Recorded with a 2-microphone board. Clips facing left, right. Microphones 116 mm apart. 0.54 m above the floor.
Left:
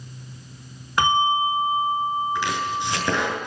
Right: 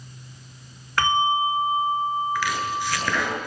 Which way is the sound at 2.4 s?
20° left (ahead or behind).